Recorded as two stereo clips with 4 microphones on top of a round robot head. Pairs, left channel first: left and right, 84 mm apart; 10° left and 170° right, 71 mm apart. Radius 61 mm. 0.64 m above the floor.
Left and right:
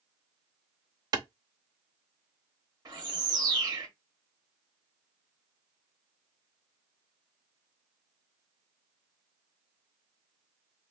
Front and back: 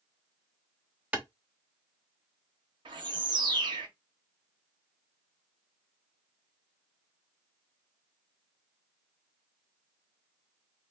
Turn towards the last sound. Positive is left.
turn(degrees=-150)